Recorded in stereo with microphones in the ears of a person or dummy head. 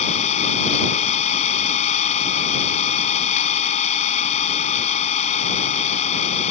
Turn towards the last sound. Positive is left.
turn(degrees=40)  # may be behind; listen again after turning